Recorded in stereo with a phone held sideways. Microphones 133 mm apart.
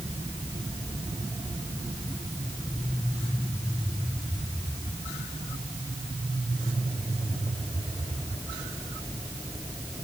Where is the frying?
I don't hear frying.